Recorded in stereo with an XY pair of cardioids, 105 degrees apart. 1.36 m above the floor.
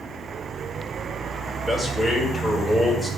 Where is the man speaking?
10° left, 5.5 m.